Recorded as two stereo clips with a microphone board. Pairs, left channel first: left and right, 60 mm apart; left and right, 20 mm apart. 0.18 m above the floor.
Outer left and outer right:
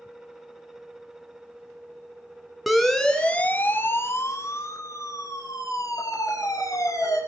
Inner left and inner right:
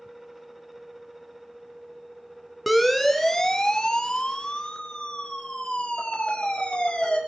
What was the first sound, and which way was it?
A siren, centre (ahead or behind).